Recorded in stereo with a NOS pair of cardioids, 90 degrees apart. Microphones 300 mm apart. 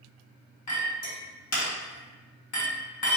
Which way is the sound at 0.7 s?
60° left.